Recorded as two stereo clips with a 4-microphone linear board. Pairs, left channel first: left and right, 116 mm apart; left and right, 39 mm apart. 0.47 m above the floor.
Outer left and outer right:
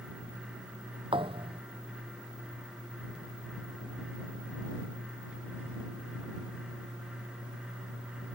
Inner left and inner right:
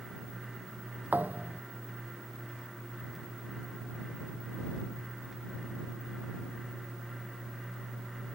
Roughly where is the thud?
Right.